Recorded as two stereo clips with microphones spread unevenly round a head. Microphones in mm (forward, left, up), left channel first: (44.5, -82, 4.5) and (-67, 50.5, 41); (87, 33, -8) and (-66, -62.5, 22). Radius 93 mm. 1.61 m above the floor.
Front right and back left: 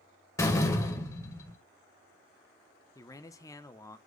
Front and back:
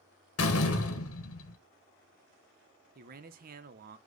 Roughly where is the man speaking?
Behind right.